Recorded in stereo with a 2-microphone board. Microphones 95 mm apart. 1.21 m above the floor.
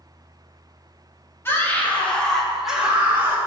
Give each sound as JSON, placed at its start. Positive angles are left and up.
{"t": 1.4, "sound": "a scream", "side_deg": 25, "distance_m": 2.5}